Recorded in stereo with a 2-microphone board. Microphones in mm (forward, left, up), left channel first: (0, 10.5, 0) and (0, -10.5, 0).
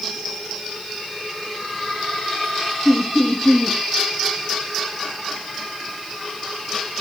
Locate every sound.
2.9 s laughter: 20° left (ahead or behind), 2.0 m